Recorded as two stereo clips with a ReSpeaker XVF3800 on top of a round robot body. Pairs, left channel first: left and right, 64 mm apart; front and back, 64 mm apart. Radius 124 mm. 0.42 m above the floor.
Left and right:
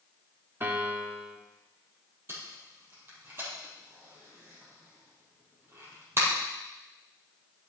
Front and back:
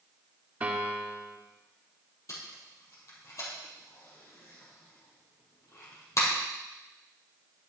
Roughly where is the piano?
Behind right.